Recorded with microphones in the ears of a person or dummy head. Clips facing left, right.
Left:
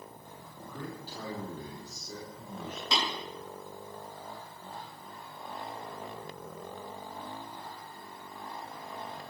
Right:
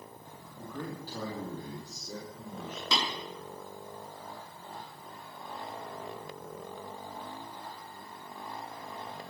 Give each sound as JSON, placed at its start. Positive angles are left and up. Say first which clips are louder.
{"t": 0.5, "sound": "a man speaking", "louder": "right 3 dB", "side_deg": -40, "distance_m": 2.5}
{"t": 2.9, "sound": "tapping", "louder": "even", "side_deg": -70, "distance_m": 6.5}